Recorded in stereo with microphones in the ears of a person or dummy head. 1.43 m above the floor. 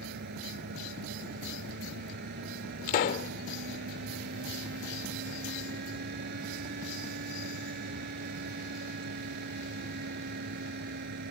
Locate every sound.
0.0 s a fan: 60° right (ahead or behind)
2.9 s a pop: 45° left (ahead or behind)